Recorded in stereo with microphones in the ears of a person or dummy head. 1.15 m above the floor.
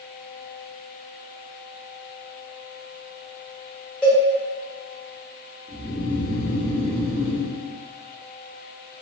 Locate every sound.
4.0 s a cowbell: 5° left (ahead or behind), 0.9 m
5.7 s snoring: 20° left (ahead or behind), 1.6 m